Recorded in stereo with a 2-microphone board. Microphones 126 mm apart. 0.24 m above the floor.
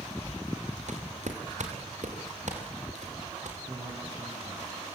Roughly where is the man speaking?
Right.